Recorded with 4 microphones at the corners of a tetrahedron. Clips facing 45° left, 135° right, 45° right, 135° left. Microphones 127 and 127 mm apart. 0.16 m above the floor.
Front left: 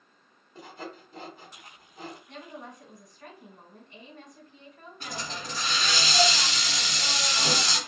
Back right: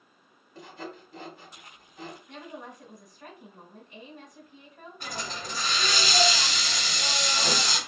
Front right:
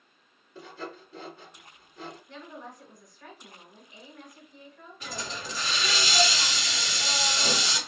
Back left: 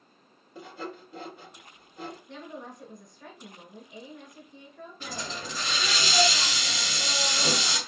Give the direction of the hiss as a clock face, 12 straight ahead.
7 o'clock.